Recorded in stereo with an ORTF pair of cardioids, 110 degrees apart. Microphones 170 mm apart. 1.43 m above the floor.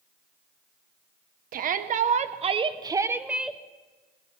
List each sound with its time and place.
1.5 s a shout: 60° right, 1.3 m; by 3.6 s 5° left, 1.0 m